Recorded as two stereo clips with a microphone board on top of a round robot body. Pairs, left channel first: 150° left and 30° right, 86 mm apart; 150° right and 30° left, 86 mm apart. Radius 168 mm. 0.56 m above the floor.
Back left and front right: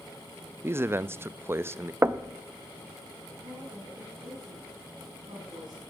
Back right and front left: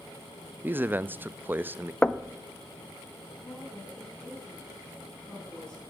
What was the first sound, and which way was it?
A man speaking, 10° right.